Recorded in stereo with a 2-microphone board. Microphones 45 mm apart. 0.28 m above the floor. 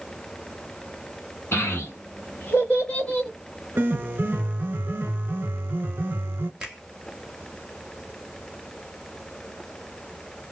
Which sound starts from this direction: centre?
A finger snap, at 6.6 s.